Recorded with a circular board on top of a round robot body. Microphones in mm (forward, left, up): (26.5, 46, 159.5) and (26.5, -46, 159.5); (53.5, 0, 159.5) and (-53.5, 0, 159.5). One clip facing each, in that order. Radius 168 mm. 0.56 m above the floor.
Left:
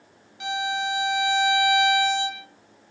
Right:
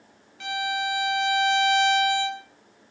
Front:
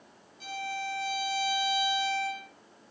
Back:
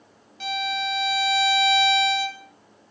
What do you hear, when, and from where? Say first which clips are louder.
0.4 s a violin: left 1 dB, back 8 dB; 165° left, 2.0 m